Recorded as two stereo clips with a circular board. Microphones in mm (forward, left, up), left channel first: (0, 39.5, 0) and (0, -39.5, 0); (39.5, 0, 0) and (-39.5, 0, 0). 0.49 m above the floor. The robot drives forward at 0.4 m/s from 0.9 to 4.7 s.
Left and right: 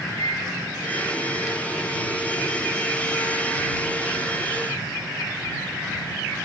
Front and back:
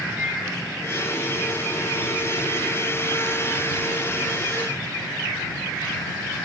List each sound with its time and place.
0.2 s a microwave: 115° left, 1.4 m